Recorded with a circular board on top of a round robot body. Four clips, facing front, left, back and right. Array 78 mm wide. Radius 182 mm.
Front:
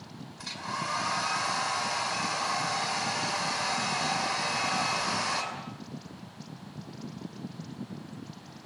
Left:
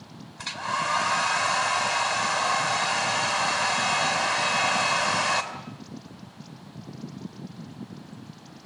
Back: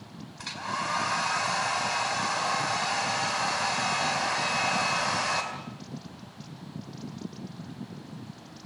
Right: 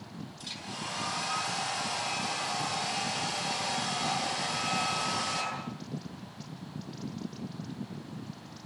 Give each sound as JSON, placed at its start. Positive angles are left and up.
{"t": 0.4, "sound": "a hair dryer", "azimuth_deg": 110, "distance_m": 4.0}